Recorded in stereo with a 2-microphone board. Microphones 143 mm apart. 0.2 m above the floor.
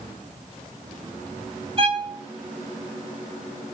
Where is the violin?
45° right (ahead or behind), 2.5 m.